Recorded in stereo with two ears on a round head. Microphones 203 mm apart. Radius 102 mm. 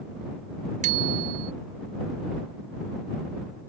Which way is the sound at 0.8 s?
35° right (ahead or behind).